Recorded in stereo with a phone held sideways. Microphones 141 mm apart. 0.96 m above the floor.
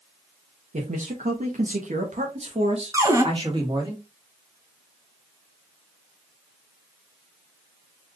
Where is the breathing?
No breathing in this recording.